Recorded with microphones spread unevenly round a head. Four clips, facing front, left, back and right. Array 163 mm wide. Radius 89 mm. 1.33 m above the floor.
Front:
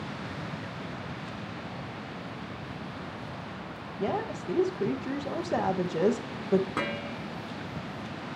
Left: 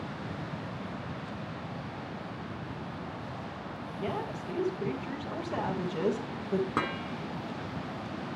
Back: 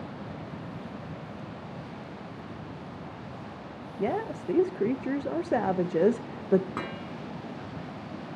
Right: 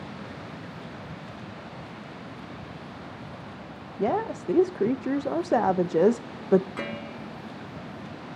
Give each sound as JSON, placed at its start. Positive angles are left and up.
{"t": 4.0, "sound": "a woman speaking", "azimuth_deg": -115, "distance_m": 1.2}
{"t": 6.8, "sound": "dishes clattering", "azimuth_deg": 75, "distance_m": 9.5}